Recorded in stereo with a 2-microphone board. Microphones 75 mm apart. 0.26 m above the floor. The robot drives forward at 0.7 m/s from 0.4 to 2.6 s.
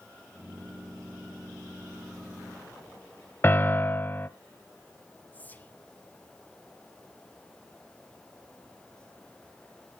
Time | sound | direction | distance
3.4 | a piano | 30° left (ahead or behind) | 0.9 m
5.3 | whispering | 25° left (ahead or behind) | 1.9 m